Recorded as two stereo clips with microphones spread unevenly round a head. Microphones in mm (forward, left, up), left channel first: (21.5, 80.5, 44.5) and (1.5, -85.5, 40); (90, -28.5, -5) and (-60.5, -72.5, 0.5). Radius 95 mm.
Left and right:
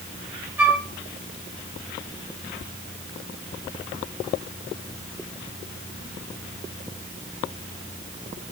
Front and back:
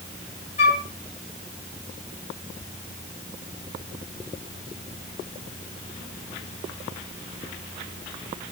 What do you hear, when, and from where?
0.6 s a flute: 15° right, 1.5 m